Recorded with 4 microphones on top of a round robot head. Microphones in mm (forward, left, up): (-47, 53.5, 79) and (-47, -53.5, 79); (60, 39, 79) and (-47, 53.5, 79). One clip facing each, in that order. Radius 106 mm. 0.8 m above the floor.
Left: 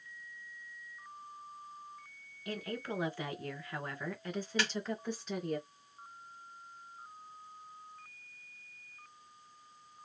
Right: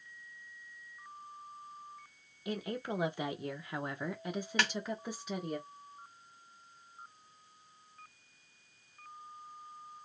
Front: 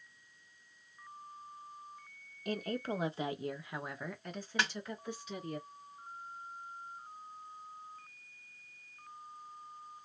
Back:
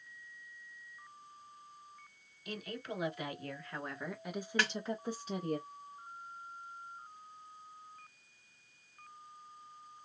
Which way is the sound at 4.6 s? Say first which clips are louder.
Right 3 dB, even; 80° right.